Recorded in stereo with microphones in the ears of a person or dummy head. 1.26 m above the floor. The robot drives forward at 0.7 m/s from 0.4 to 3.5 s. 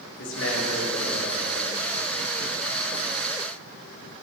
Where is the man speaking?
80° left, 2.5 m; by 2.0 s 65° left (ahead or behind), 3 m.